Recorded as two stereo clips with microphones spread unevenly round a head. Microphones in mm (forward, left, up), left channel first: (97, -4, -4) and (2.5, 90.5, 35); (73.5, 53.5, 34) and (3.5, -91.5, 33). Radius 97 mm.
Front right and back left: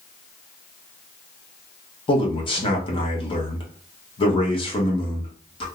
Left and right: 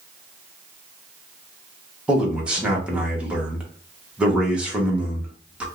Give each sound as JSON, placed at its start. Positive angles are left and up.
{"t": 2.1, "sound": "a man speaking", "azimuth_deg": -35, "distance_m": 1.3}